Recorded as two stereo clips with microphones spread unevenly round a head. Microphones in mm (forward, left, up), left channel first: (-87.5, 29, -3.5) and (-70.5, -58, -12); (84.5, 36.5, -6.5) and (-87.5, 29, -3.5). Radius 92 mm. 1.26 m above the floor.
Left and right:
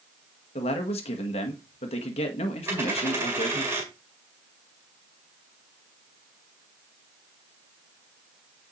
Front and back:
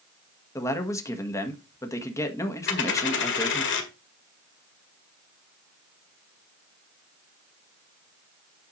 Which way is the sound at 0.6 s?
75° left.